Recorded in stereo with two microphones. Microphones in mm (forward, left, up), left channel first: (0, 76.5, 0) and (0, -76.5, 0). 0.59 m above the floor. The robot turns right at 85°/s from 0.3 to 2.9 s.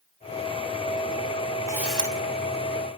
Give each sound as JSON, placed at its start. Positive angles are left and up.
{"t": 1.7, "sound": "a camera shutter", "azimuth_deg": -20, "distance_m": 3.5}